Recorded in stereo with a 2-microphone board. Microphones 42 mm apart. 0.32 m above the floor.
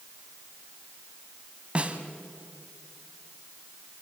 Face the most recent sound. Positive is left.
turn(degrees=-30)  # may be behind; listen again after turning